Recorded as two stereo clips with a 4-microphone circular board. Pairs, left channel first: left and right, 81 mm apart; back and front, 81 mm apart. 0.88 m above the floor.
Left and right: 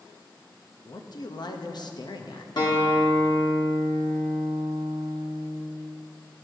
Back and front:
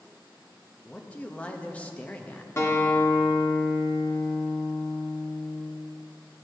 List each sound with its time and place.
0.8 s a man speaking: 105° left, 0.6 m
2.6 s a guitar: 120° left, 1.2 m